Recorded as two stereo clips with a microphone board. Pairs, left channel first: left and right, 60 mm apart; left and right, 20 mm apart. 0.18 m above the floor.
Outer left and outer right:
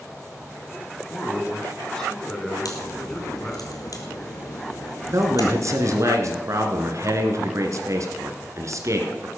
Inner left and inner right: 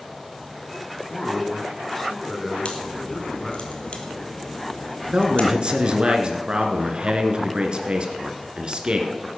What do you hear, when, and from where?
1.1 s a man speaking: 10° left (ahead or behind), 2 m
2.6 s a crack: 75° left (ahead or behind), 2.5 m
5.1 s a man speaking: 60° right (ahead or behind), 2 m